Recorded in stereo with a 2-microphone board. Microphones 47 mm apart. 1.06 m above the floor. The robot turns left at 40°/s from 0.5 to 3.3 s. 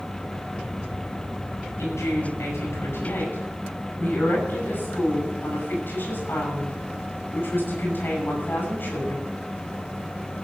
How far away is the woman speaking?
About 9 m.